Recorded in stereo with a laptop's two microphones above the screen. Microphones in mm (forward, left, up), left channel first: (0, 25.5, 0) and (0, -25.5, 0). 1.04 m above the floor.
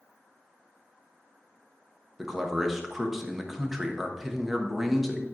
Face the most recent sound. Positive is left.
turn(degrees=-5)  # may be behind; listen again after turning